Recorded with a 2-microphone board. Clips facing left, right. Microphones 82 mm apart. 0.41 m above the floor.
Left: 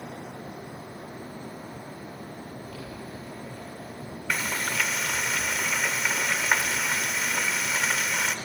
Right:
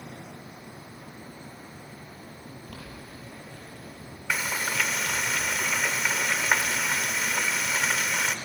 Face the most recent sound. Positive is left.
turn(degrees=-5)  # may be behind; listen again after turning